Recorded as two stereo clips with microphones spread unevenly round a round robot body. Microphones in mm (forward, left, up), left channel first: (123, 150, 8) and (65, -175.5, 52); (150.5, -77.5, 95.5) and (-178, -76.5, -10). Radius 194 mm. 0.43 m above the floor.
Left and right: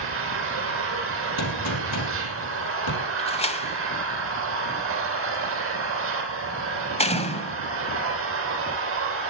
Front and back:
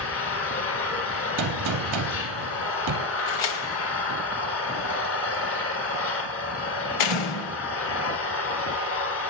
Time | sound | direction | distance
0.0 | an engine running | 50° right | 4.5 m
1.4 | a gunshot | 130° left | 3 m
3.2 | a door slam | 10° left | 2 m